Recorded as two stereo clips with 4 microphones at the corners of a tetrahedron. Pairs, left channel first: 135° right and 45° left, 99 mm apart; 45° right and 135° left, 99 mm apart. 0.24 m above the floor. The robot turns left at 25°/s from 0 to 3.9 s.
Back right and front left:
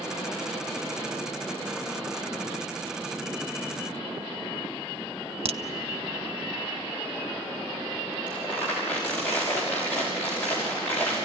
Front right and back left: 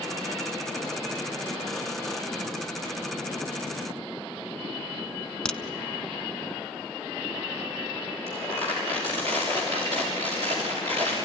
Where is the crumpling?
150° left, 6 m.